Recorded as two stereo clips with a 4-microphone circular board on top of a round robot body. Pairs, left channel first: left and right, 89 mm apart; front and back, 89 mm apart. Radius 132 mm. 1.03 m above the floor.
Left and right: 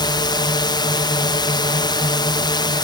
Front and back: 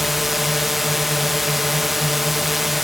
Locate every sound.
0.0 s a drone: 90° left